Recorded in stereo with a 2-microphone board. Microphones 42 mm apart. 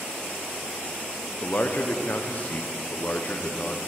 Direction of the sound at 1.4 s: 40° left (ahead or behind).